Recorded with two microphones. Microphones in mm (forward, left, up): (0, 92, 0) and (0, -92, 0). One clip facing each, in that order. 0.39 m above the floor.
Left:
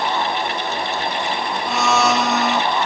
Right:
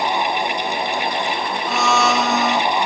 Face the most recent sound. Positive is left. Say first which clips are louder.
# even
turn(degrees=0)  # may be behind; listen again after turning